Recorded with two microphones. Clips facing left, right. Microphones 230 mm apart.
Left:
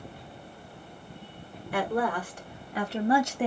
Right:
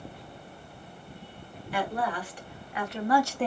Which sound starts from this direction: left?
A woman speaking, at 1.7 s.